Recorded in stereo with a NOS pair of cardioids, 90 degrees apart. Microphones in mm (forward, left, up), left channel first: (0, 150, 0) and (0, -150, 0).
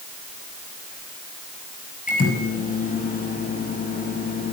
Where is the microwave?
25° left, 7 m.